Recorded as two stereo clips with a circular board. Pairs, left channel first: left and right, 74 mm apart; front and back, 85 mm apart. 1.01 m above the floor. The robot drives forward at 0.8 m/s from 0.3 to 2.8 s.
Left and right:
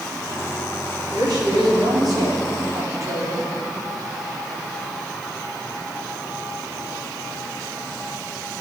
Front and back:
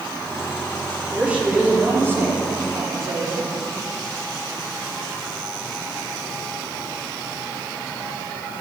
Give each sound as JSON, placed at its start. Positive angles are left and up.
{"t": 1.1, "sound": "a woman speaking", "azimuth_deg": -100, "distance_m": 2.5}